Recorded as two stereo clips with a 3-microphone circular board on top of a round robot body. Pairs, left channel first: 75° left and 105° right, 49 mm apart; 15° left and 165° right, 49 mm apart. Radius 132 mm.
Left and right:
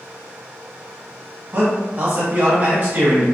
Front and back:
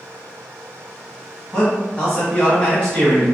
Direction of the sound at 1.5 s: 55° right.